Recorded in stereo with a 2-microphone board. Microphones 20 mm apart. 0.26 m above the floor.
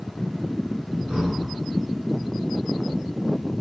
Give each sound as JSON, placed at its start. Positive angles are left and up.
{"t": 1.1, "sound": "breathing", "side_deg": -65, "distance_m": 1.5}